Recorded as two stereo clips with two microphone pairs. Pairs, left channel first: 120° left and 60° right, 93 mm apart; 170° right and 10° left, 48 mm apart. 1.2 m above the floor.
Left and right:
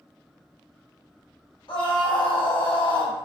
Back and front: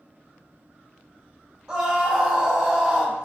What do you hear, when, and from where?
1.7 s a scream: 75° left, 0.6 m